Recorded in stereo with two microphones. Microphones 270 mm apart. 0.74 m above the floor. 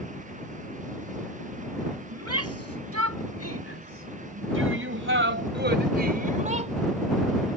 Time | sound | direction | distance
2.1 | a shout | 65° right (ahead or behind) | ?